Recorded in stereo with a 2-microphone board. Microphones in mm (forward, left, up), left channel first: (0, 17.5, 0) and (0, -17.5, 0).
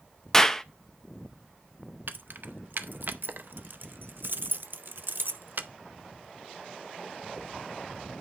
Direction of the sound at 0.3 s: 20° left (ahead or behind).